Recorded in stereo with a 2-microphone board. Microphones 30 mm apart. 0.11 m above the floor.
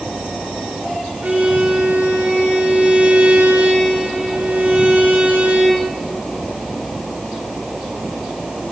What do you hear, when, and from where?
1.2 s a violin: 65° right (ahead or behind), 3.5 m